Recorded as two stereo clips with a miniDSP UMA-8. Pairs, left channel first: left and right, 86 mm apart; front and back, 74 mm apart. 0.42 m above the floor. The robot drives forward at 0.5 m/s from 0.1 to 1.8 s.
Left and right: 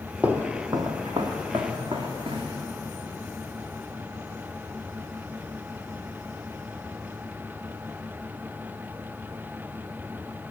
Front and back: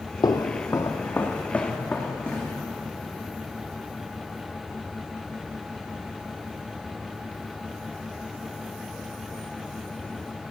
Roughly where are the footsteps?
Ahead.